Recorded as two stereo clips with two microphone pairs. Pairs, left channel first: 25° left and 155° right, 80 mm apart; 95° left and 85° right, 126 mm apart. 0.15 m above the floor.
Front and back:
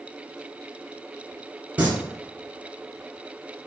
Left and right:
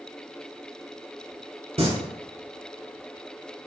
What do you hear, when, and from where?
1.8 s singing: 95° right, 1.3 m